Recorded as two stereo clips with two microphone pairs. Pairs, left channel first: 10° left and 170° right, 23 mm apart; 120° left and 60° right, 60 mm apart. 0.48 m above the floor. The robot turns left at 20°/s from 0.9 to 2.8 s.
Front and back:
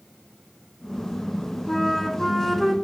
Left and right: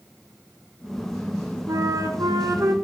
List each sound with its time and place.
1.7 s a flute: 65° right, 0.8 m; by 2.7 s 85° right, 0.8 m